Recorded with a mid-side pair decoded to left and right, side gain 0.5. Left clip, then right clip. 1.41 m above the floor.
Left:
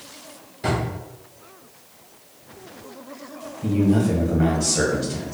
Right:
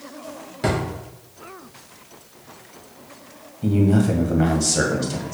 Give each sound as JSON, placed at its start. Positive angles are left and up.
{"t": 0.6, "sound": "a drawer", "azimuth_deg": -60, "distance_m": 1.8}
{"t": 3.6, "sound": "a man speaking", "azimuth_deg": -30, "distance_m": 1.3}